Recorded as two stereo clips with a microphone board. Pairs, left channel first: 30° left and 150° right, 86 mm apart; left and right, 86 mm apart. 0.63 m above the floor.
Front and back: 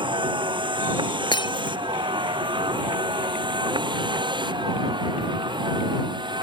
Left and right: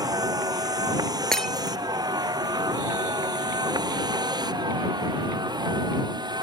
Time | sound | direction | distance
0.0 | a vehicle | 130° right | ?
1.3 | breaking glass | 5° left | ?